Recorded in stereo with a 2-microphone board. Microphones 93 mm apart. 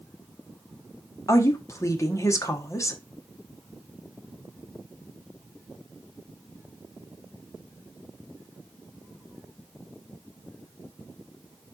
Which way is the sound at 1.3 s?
35° left (ahead or behind).